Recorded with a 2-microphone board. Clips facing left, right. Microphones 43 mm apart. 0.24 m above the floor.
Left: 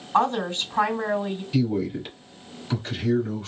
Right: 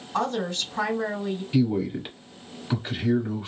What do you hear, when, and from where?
0.1 s a woman speaking: 35° left (ahead or behind), 2 m
1.5 s a man speaking: 15° right (ahead or behind), 1.0 m